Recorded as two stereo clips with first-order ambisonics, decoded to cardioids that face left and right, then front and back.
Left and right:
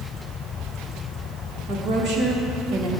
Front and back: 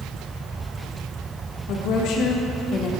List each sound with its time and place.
1.7 s a woman speaking: 35° right, 2.5 m; by 2.9 s 55° right, 2 m